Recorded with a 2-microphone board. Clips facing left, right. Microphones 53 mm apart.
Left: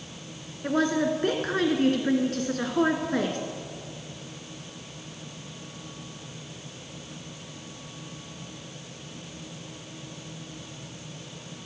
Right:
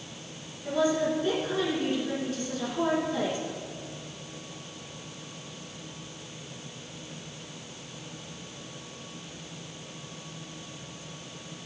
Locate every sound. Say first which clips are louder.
0.6 s a woman speaking: left 1 dB; 55° left (ahead or behind), 2 m